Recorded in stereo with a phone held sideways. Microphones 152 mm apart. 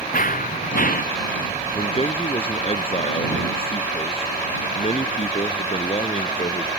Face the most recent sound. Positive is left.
turn(degrees=40)  # may be behind; listen again after turning